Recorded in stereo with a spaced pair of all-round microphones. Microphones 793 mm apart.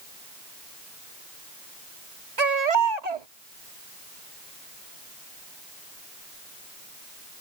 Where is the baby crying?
55° right (ahead or behind).